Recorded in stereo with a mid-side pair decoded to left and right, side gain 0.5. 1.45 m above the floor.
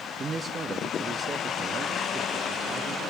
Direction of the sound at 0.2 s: 35° right.